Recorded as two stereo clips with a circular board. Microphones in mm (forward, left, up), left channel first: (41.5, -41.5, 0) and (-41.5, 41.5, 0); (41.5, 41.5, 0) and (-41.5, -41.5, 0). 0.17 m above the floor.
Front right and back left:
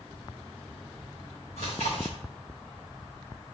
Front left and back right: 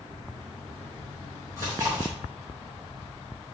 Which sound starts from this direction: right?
Chewing, at 1.6 s.